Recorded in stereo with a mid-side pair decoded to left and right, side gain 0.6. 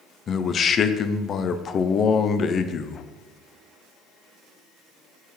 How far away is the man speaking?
About 0.6 m.